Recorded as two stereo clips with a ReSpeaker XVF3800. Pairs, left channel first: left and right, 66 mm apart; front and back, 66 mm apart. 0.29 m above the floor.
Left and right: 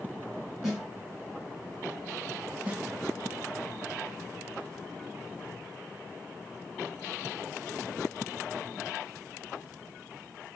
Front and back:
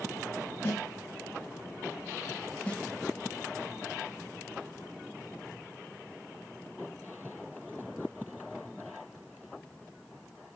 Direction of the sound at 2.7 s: 45° right.